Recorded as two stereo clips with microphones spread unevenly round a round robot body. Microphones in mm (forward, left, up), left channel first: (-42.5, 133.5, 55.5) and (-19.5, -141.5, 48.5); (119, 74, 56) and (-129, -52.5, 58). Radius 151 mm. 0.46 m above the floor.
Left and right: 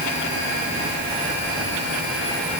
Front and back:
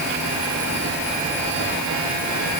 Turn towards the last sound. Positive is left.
No sound to turn to.